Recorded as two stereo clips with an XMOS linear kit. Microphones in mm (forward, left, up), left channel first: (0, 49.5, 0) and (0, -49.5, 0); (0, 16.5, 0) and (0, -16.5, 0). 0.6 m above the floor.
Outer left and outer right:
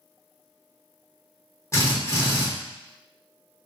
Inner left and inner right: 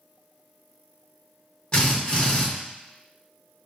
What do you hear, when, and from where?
1.7 s a drill: 30° left (ahead or behind), 1.3 m